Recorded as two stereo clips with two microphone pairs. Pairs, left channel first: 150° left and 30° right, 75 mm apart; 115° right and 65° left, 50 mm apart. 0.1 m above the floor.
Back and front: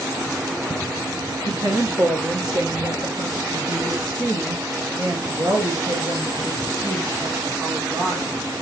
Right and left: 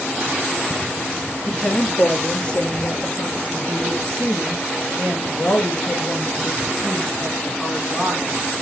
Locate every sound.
1.4 s a woman speaking: 65° right, 1.9 m; by 8.4 s 35° right, 5.5 m